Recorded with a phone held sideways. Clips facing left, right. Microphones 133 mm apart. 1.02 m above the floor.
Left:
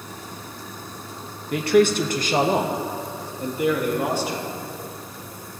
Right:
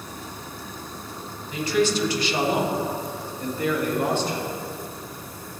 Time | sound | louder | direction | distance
1.5 | a man speaking | left 5 dB | 70° left (ahead or behind) | 0.8 m